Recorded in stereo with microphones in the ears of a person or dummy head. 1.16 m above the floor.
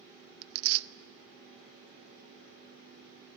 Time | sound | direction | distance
0.4 | tearing paper | 85° right | 0.5 m